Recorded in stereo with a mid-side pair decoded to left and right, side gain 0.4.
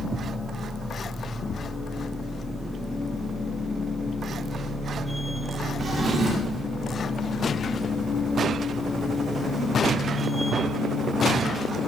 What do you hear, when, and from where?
0.0 s a machine running: 15° left, 1.2 m
5.8 s a drawer: 50° right, 1.4 m